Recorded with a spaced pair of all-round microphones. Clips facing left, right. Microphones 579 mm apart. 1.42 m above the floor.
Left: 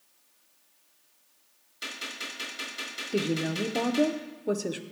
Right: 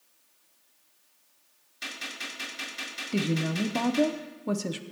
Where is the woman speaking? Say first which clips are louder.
Even; 30° right (ahead or behind), 0.6 m.